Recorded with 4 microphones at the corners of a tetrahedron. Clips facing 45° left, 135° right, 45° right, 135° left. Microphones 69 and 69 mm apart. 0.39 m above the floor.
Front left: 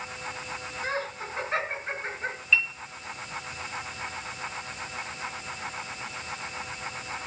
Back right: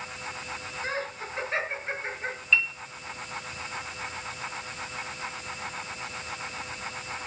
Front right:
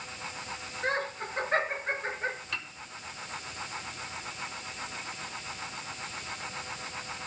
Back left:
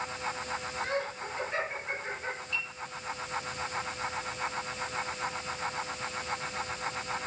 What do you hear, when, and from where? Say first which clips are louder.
0.8 s laughter: front left 1 dB, front right 5 dB; 5° right, 4.5 m; by 2.4 s 10° right, 5 m
2.5 s a piano: even, back left 2 dB; 40° right, 2.5 m